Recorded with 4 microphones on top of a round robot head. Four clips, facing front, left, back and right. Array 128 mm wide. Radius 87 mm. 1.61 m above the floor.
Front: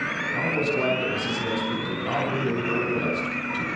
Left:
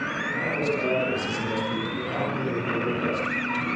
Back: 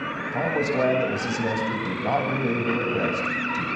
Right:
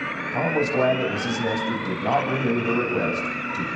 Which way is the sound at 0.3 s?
130° right.